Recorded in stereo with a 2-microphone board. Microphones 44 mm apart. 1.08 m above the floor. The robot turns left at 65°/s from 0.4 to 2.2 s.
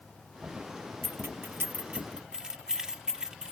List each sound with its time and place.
1.0 s keys jangling: 90° right; by 3.5 s 15° right (ahead or behind)